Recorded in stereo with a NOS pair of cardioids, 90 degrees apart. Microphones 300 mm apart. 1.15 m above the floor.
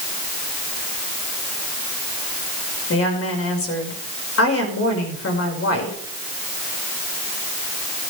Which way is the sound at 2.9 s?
50° left.